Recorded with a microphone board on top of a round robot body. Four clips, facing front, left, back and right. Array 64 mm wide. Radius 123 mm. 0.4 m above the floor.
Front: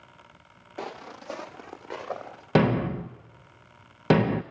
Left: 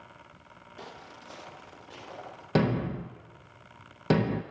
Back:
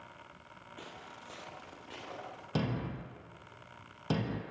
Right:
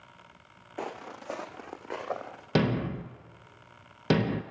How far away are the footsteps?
About 0.8 m.